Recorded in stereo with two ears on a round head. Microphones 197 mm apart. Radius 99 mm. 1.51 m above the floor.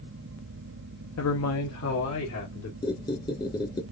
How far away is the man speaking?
About 0.7 m.